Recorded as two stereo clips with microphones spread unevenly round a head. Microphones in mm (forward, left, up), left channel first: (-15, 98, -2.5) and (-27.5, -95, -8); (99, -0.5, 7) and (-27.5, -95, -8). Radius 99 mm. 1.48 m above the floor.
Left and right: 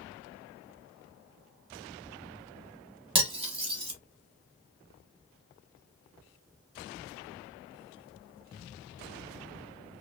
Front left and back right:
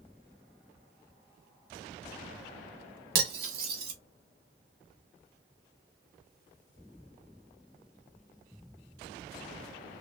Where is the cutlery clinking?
150° right, 1.0 m.